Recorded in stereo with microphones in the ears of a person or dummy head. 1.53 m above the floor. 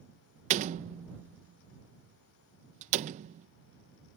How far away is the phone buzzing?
I don't hear a phone buzzing.